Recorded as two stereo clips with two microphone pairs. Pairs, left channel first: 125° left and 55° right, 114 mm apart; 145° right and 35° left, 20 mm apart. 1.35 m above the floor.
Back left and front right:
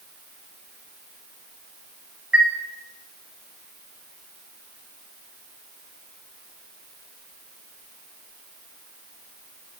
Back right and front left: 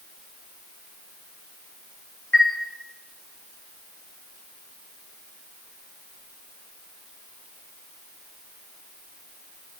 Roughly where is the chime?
Behind right.